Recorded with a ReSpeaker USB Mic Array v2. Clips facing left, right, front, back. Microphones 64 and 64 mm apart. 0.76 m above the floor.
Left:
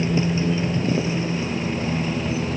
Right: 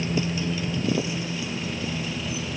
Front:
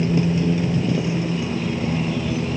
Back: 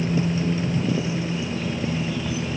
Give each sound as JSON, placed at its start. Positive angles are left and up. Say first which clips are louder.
{"t": 0.0, "sound": "a motorcycle", "louder": "left 5 dB, front 3 dB", "azimuth_deg": 30}